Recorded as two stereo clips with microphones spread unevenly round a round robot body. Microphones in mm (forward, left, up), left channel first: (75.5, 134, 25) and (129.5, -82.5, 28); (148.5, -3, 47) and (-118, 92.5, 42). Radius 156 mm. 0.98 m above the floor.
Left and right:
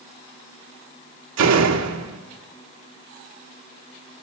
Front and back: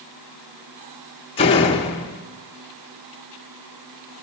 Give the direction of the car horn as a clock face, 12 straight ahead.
No car horn in this recording.